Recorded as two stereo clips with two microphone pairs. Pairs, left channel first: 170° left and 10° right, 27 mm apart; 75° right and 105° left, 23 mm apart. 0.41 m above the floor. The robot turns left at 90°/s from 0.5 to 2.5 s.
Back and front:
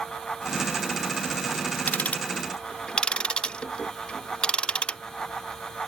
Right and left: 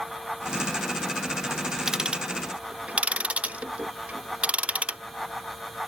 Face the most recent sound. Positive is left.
turn(degrees=115)